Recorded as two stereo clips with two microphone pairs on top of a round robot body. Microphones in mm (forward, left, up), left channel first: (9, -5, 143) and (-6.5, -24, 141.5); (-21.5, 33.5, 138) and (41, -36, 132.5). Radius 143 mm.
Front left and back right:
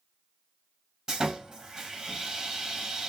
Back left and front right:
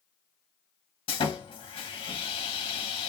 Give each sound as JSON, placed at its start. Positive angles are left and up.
{"t": 1.1, "sound": "sawing", "azimuth_deg": 165, "distance_m": 0.8}